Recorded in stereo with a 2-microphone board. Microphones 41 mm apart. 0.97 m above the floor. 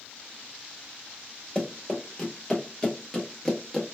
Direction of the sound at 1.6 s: 20° left (ahead or behind).